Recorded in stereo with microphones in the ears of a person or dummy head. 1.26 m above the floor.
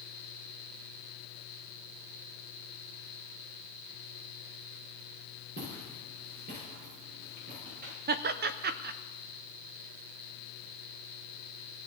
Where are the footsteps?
45° right (ahead or behind), 6 m; by 7.9 s 40° right (ahead or behind), 8 m.